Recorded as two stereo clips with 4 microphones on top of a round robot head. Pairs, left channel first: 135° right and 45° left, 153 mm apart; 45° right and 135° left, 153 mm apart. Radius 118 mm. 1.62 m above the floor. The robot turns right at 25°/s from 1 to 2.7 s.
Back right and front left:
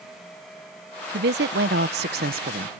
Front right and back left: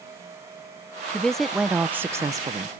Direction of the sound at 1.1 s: 40° left.